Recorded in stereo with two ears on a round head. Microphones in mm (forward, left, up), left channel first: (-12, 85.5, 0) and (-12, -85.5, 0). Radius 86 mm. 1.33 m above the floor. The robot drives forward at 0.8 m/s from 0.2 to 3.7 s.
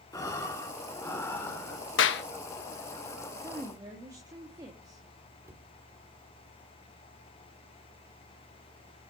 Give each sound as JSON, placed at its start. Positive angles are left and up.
{"t": 0.1, "sound": "breathing", "side_deg": 20, "distance_m": 2.5}
{"t": 2.0, "sound": "a clap", "side_deg": 70, "distance_m": 1.3}
{"t": 3.4, "sound": "a woman speaking", "side_deg": -20, "distance_m": 2.5}
{"t": 5.4, "sound": "a cupboard door", "side_deg": -15, "distance_m": 2.0}